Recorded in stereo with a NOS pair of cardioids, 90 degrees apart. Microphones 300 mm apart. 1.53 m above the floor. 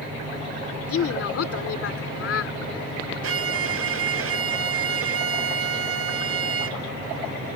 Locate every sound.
0.9 s a woman speaking: 55° left
3.2 s a violin: 55° right